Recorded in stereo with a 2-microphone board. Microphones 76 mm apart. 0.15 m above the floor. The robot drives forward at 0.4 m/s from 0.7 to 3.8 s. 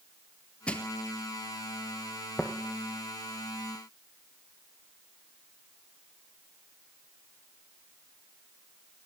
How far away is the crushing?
About 0.6 m.